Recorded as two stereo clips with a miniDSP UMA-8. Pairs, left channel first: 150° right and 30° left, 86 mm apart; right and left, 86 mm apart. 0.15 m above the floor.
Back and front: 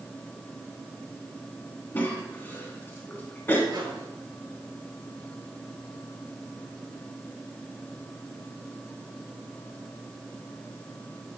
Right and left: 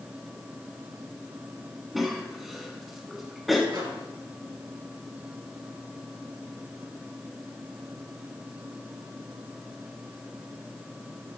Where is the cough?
175° left, 1.2 m.